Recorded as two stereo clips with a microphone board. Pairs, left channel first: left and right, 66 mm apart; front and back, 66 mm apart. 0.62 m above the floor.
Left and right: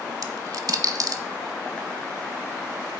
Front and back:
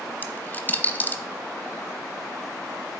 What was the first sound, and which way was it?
A dropped coin, 65° right.